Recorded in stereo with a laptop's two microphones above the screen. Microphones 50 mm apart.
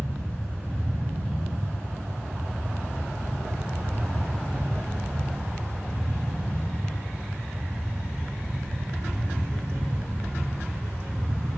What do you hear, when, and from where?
0.0 s a fan: 35° left (ahead or behind), 1.1 m